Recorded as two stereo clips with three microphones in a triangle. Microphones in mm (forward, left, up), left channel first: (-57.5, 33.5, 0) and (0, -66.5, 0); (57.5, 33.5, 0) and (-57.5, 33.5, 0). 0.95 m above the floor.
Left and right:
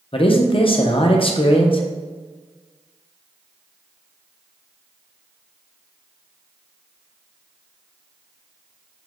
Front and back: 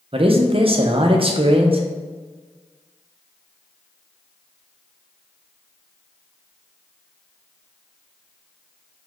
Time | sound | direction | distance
0.1 | a man speaking | 150° left | 0.5 m